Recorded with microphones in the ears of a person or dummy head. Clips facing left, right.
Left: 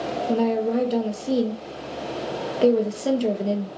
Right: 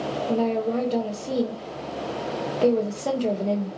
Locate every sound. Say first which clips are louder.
0.3 s a woman speaking: left 2 dB; 15° left (ahead or behind), 0.5 m